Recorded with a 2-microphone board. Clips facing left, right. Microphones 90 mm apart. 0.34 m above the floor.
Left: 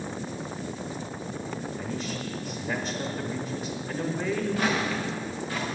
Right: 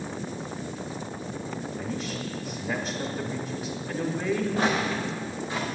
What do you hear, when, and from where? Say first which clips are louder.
1.8 s a man speaking: even; 5° right (ahead or behind), 0.9 m
4.6 s footsteps: right 1 dB; 30° right (ahead or behind), 1.6 m; by 5.7 s 20° right (ahead or behind), 2 m